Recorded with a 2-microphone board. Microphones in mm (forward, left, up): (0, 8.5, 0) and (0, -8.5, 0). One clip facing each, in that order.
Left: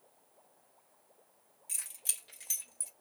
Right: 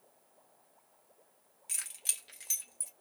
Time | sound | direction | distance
1.7 | keys jangling | 35° right (ahead or behind) | 0.8 m